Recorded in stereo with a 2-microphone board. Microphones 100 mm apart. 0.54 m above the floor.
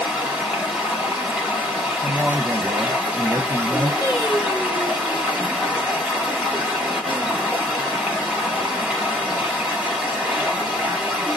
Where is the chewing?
No chewing in this recording.